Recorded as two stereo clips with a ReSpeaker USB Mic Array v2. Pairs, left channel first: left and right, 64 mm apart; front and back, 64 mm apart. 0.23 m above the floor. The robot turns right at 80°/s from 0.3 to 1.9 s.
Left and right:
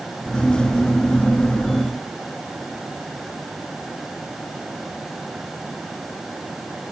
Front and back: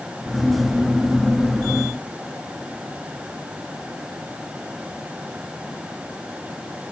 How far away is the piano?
I don't hear a piano.